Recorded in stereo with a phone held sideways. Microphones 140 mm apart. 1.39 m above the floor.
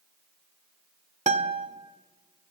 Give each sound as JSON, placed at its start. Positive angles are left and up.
{"t": 1.3, "sound": "a guitar", "side_deg": -55, "distance_m": 1.5}